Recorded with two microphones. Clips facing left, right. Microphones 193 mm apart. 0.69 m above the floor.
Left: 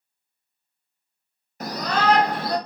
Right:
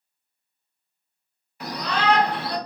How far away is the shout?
About 0.6 m.